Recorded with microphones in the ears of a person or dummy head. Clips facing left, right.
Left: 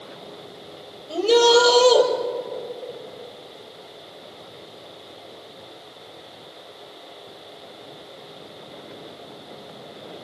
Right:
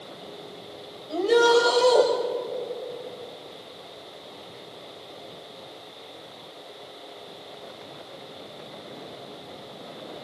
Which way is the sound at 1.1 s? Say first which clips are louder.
Left 3 dB; 45° left (ahead or behind).